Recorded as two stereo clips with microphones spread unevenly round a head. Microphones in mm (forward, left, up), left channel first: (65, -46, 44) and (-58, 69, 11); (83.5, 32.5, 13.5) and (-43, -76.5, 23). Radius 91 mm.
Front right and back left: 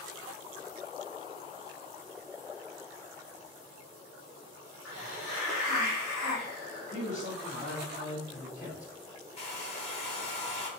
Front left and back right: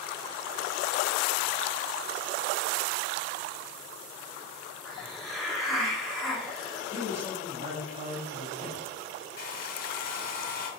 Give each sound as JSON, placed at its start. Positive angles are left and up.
{"t": 4.8, "sound": "a hiss", "azimuth_deg": -45, "distance_m": 1.5}
{"t": 6.9, "sound": "a man speaking", "azimuth_deg": -90, "distance_m": 1.6}
{"t": 9.4, "sound": "a hair dryer", "azimuth_deg": 15, "distance_m": 1.3}